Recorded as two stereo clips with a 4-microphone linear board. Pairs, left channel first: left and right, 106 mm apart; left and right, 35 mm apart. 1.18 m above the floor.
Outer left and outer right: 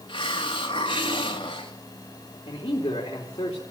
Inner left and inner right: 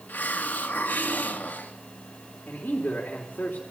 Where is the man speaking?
40° left (ahead or behind), 3 m.